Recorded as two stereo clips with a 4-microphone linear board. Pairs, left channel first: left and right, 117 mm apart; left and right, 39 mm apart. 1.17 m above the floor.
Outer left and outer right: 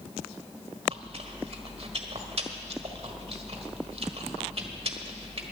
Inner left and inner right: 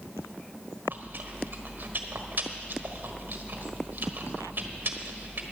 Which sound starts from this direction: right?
Chewing, at 0.9 s.